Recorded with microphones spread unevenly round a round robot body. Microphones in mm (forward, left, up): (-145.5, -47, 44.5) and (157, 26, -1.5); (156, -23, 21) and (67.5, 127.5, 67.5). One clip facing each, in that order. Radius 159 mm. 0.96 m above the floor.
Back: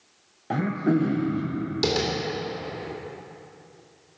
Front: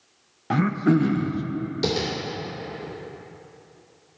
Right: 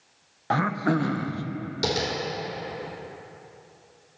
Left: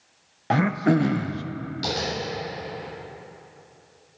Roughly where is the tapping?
Right.